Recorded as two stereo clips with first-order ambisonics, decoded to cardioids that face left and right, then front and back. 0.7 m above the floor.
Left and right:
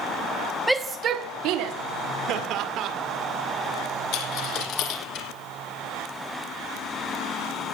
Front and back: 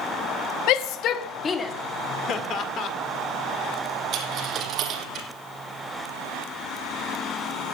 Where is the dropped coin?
125° left, 2 m.